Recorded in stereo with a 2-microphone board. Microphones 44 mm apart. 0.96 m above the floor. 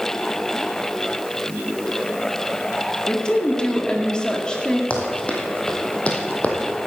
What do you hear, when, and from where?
3.1 s a woman speaking: 20° left (ahead or behind), 2 m
4.9 s running footsteps: 30° left (ahead or behind), 3 m; by 6.6 s 35° left (ahead or behind), 2.5 m